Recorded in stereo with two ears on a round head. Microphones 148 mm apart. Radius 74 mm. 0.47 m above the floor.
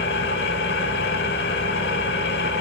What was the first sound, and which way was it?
An engine running, 65° left (ahead or behind).